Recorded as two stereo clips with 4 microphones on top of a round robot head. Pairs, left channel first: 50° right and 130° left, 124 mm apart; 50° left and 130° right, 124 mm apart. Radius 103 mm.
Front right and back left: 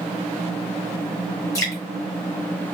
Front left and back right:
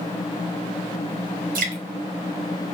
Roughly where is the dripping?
Behind right.